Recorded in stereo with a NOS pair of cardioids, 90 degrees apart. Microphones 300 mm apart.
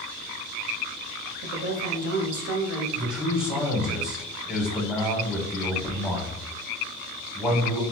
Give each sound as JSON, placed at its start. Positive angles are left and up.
{"t": 1.4, "sound": "a woman speaking", "azimuth_deg": -50, "distance_m": 1.0}
{"t": 3.0, "sound": "a man speaking", "azimuth_deg": -5, "distance_m": 1.2}